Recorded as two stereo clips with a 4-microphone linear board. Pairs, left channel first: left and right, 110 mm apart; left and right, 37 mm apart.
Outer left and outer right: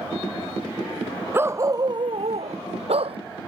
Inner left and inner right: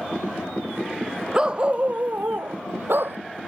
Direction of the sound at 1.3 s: 20° right (ahead or behind).